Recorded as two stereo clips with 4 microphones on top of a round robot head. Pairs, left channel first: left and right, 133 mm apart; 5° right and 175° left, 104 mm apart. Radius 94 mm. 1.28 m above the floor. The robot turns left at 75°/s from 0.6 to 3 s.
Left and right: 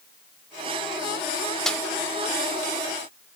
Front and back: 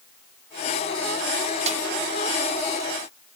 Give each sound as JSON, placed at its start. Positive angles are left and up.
{"t": 1.7, "sound": "a snare drum", "azimuth_deg": 175, "distance_m": 1.2}